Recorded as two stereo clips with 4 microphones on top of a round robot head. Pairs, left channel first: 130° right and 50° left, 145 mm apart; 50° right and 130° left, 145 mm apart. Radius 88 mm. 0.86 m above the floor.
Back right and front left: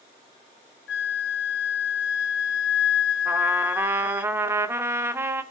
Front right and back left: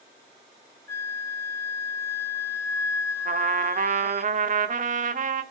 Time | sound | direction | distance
0.9 | a flute | 125° right | 0.6 m
3.2 | a trumpet | 125° left | 1.6 m